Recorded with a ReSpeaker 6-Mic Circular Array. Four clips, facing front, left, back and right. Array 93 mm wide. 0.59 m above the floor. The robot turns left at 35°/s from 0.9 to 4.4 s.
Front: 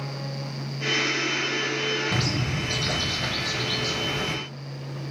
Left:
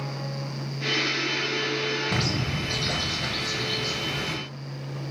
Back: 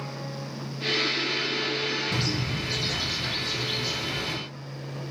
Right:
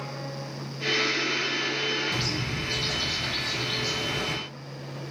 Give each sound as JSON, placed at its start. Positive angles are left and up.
{"t": 2.1, "sound": "a bird", "azimuth_deg": 60, "distance_m": 0.6}